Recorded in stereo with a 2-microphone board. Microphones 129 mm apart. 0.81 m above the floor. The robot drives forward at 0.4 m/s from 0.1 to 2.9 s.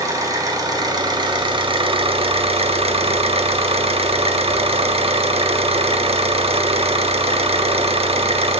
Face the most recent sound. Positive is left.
turn(degrees=-50)  # may be behind; listen again after turning